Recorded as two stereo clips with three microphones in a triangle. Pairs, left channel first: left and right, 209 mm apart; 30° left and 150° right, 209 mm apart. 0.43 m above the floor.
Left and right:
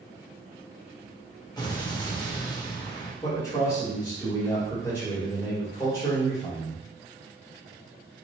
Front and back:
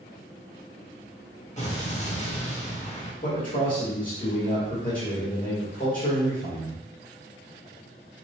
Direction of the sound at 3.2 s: 30° left.